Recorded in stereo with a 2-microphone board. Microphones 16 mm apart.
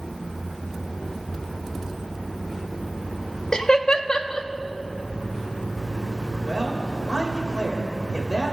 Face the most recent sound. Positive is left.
turn(degrees=-75)  # may be behind; listen again after turning